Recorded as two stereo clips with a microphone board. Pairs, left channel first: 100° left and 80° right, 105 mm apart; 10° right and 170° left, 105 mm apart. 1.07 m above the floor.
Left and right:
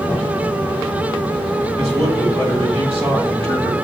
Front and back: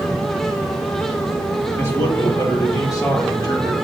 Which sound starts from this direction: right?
A man speaking, at 1.8 s.